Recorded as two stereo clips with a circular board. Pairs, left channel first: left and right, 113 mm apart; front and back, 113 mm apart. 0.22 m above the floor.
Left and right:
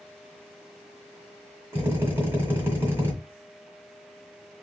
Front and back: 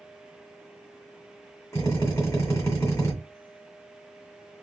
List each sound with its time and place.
1.7 s a drill: 40° right, 1.5 m